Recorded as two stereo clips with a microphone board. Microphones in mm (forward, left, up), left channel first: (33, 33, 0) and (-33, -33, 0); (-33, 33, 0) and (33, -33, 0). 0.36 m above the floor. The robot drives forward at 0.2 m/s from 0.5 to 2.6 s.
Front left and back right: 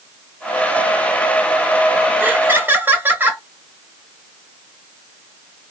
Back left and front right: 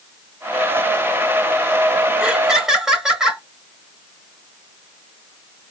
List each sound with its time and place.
2.2 s laughter: 110° right, 0.8 m; by 3.4 s 125° right, 0.8 m